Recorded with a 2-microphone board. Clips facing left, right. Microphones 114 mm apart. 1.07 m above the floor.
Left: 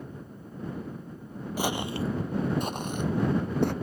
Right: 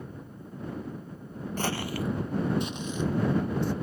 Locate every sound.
1.6 s footsteps: 10° left (ahead or behind); by 3.7 s 65° left (ahead or behind)